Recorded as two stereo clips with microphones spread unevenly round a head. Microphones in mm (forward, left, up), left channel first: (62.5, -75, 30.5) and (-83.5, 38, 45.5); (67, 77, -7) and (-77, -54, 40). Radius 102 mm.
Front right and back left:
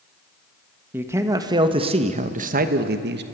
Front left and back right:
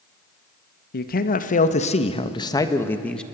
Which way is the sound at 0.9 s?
60° left.